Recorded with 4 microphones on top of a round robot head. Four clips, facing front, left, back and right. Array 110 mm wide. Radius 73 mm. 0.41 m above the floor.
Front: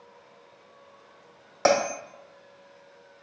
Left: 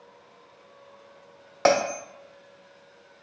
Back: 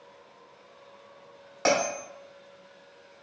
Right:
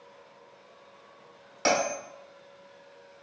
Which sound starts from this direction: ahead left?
A bell, at 1.6 s.